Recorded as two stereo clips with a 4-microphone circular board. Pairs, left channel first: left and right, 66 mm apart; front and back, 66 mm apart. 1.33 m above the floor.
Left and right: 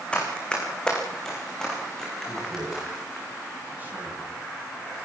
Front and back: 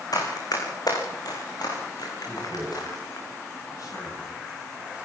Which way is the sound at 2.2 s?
25° right.